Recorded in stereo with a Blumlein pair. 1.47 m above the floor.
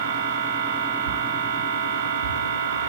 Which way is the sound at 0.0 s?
65° right.